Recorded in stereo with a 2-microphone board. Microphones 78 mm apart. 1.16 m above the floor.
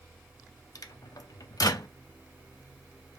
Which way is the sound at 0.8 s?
55° left (ahead or behind).